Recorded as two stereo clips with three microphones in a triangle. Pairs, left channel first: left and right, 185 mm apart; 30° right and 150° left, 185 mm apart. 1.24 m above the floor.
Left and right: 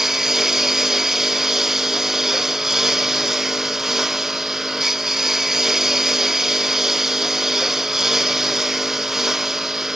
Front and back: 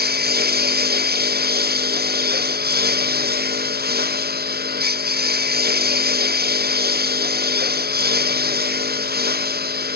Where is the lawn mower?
Straight behind.